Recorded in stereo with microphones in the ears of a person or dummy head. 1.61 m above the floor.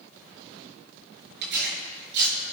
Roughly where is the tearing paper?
Right.